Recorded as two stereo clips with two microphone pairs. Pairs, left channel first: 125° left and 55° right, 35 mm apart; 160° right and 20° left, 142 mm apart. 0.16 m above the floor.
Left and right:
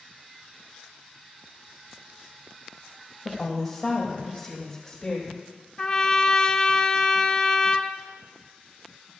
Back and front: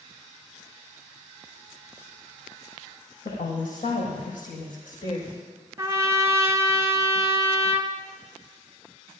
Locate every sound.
3.2 s a woman speaking: 155° right, 5.5 m; by 5.4 s 165° right, 5.5 m
5.8 s a trumpet: 75° left, 0.9 m